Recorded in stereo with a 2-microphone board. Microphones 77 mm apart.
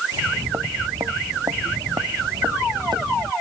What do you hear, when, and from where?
0.1 s footsteps: 45° right (ahead or behind); by 3.3 s 75° right (ahead or behind)